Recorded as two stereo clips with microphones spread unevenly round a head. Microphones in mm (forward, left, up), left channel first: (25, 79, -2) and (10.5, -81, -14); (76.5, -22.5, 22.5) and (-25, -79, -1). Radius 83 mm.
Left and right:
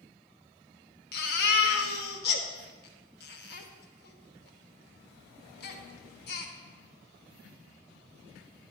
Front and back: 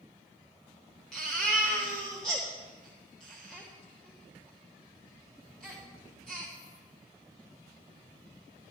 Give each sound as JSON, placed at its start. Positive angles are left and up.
{"t": 1.1, "sound": "a baby crying", "azimuth_deg": 110, "distance_m": 1.3}